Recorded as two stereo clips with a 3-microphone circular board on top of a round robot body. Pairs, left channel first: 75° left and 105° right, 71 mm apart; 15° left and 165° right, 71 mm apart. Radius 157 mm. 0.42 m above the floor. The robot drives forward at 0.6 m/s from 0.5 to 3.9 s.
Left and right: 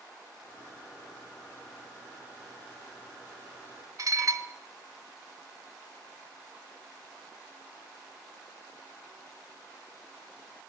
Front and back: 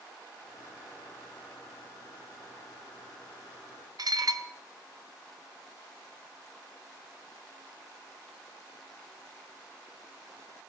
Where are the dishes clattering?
140° right, 1.0 m.